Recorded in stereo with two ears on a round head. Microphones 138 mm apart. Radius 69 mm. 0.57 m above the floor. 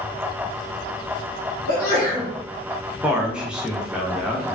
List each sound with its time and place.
1.7 s a sneeze: 30° left (ahead or behind), 1.9 m
3.0 s a man speaking: 5° right (ahead or behind), 0.6 m